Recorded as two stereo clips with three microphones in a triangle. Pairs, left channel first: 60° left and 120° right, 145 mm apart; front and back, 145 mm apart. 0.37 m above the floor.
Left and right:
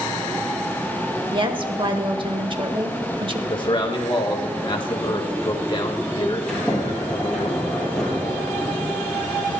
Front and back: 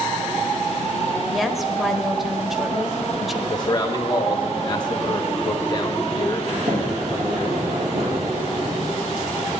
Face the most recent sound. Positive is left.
turn(degrees=145)